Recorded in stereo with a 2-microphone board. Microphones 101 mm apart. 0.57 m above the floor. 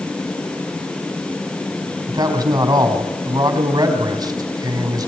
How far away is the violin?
No violin in this recording.